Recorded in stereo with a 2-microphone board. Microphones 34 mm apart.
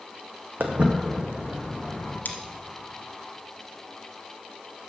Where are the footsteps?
55° right (ahead or behind), 0.9 m; by 2.1 s 5° right (ahead or behind), 2.5 m.